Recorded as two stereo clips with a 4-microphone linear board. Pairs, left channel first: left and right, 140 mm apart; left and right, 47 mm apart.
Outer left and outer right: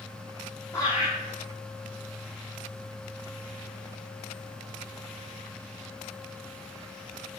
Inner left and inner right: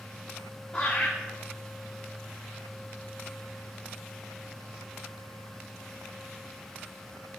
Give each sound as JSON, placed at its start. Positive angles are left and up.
{"t": 0.7, "sound": "laughter", "side_deg": 25, "distance_m": 4.5}